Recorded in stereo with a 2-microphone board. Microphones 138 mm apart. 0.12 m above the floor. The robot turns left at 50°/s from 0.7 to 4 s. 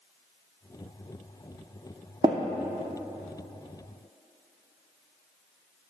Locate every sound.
2.2 s tapping: 35° right (ahead or behind), 1.3 m; by 2.4 s 30° right (ahead or behind), 1.3 m